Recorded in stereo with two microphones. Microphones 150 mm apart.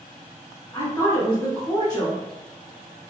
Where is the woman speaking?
25° left (ahead or behind), 1.8 m.